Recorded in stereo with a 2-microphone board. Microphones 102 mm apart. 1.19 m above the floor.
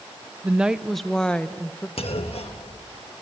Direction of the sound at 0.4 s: 15° right (ahead or behind).